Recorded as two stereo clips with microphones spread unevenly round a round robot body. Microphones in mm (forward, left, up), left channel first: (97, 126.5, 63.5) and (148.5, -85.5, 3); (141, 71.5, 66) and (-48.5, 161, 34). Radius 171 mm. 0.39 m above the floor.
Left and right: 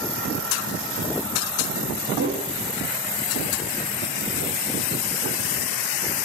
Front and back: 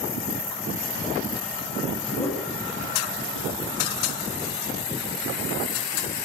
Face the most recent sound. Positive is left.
turn(degrees=-110)